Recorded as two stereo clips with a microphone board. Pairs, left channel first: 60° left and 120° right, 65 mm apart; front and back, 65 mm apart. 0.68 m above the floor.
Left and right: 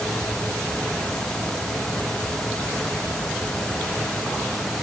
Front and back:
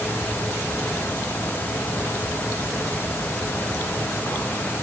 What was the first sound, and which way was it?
Only background noise.